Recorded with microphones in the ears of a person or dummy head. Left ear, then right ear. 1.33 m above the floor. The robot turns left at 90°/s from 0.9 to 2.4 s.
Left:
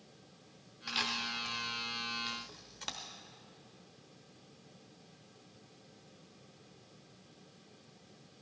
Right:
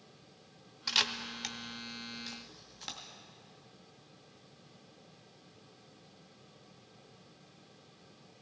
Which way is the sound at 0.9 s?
20° right (ahead or behind).